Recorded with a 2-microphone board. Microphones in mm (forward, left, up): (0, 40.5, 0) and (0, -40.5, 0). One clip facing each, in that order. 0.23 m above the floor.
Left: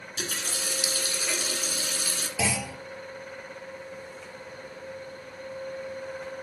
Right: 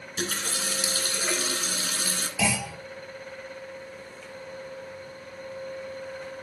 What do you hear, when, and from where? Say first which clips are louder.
0.2 s a running tap: right 3 dB; 50° right (ahead or behind), 1.8 m
2.4 s a clunk: right 2 dB; 25° left (ahead or behind), 5.5 m